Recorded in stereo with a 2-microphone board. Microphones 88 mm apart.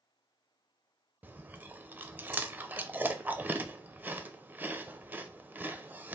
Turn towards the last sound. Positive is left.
turn(degrees=-20)  # may be behind; listen again after turning